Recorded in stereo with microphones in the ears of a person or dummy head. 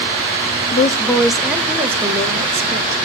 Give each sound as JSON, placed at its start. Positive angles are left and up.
{"t": 0.7, "sound": "a woman speaking", "side_deg": 35, "distance_m": 0.6}